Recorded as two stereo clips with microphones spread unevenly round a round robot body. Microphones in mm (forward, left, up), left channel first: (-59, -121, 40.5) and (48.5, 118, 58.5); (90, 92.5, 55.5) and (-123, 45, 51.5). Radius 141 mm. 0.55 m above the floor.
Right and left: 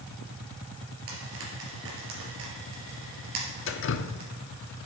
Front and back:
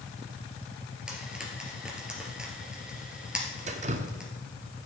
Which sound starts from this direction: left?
Frying, at 1.1 s.